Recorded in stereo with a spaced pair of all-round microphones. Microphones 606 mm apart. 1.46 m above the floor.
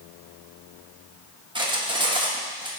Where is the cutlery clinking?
10° right (ahead or behind), 0.9 m.